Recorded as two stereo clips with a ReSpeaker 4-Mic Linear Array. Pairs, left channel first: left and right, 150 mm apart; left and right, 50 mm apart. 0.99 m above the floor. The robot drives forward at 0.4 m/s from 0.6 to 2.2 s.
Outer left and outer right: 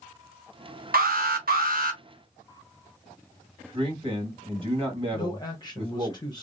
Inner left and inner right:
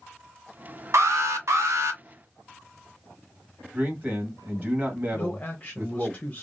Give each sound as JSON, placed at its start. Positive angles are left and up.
{"t": 0.9, "sound": "an alarm", "side_deg": -75, "distance_m": 0.9}
{"t": 3.7, "sound": "a man speaking", "side_deg": -35, "distance_m": 1.4}
{"t": 5.1, "sound": "a man speaking", "side_deg": 30, "distance_m": 0.7}